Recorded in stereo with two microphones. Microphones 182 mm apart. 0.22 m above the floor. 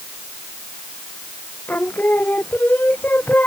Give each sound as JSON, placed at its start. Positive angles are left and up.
{"t": 1.7, "sound": "singing", "side_deg": 10}